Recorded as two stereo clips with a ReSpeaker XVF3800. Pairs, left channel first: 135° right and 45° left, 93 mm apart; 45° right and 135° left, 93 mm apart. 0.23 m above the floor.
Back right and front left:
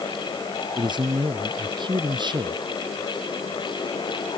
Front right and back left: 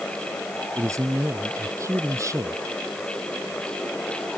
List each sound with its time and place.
0.8 s a man speaking: 80° left